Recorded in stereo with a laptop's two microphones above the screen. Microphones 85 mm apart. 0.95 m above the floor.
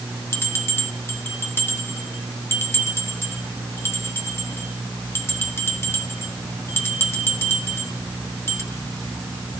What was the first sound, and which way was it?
A bell, 30° left (ahead or behind).